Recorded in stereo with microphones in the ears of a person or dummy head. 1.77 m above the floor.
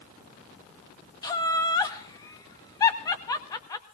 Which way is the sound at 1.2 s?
20° left (ahead or behind).